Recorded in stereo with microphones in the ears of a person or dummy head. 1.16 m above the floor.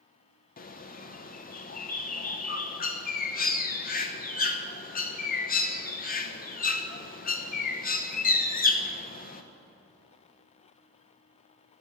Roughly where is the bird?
Left.